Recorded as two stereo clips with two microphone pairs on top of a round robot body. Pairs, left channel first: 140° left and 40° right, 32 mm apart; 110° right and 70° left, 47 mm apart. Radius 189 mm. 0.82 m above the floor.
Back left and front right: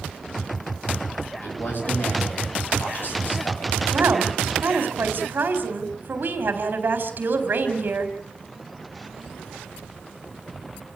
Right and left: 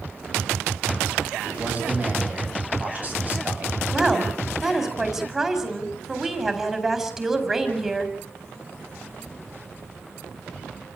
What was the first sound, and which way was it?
A man speaking, 125° left.